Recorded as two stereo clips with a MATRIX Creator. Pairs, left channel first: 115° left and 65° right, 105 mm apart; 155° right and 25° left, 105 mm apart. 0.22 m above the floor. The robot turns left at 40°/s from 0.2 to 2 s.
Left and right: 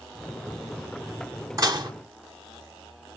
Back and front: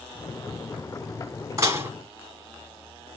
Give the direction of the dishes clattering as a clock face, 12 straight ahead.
1 o'clock.